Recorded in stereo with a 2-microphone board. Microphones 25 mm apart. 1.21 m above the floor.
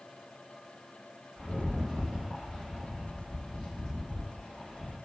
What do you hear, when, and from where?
1.4 s a rattle: 15° left (ahead or behind), 1.3 m